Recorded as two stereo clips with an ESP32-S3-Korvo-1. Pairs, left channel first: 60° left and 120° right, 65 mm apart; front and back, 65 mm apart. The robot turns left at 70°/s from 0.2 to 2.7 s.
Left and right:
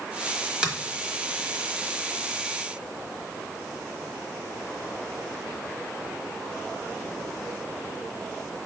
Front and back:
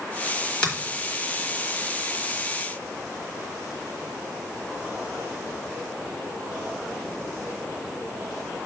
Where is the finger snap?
60° right, 1.1 m; by 0.7 s 65° right, 1.1 m.